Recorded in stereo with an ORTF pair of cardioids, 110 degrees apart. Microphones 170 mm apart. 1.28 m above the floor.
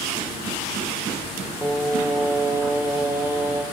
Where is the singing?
10° right, 0.9 m.